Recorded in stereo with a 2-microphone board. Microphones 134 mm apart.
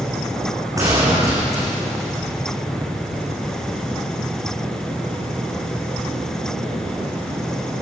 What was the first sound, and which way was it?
A gunshot, 25° right (ahead or behind).